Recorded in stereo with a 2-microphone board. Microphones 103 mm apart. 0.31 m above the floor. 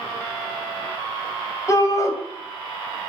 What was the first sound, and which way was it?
A shout, 35° left (ahead or behind).